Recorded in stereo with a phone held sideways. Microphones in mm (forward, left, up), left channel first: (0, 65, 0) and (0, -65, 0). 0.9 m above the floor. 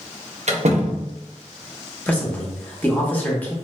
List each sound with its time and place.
0.5 s a door slam: 60° right (ahead or behind), 0.6 m
2.1 s a man speaking: 15° left (ahead or behind), 0.9 m